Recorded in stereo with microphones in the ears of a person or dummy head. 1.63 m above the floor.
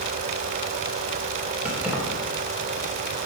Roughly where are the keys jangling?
Centre.